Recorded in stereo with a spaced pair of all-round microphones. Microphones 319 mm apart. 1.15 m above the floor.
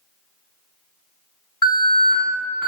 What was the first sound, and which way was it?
An alarm, 70° left (ahead or behind).